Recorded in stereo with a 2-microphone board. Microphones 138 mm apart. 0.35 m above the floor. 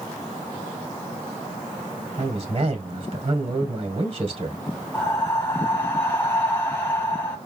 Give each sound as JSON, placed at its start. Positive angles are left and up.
{"t": 2.2, "sound": "a man speaking", "side_deg": -40, "distance_m": 2.0}
{"t": 4.9, "sound": "breathing", "side_deg": 15, "distance_m": 2.0}